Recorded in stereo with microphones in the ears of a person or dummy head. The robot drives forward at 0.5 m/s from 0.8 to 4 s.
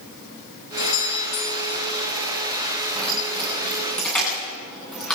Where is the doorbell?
80° left, 7.5 m; by 1.9 s 75° left (ahead or behind), 7.5 m.